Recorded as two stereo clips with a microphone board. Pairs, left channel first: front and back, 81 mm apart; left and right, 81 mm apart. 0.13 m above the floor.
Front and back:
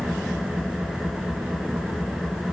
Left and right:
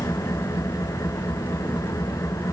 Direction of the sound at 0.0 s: 95° left.